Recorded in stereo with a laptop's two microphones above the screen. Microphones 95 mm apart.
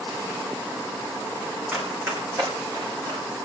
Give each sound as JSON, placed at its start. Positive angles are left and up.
{"t": 1.7, "sound": "running footsteps", "side_deg": -10, "distance_m": 2.0}